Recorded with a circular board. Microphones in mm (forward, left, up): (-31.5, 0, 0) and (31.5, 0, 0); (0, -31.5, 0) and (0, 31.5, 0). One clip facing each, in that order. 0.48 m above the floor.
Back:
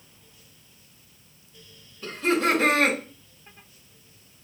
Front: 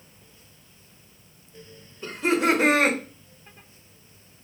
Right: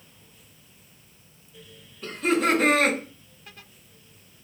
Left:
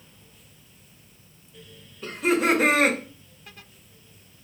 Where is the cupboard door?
I don't hear a cupboard door.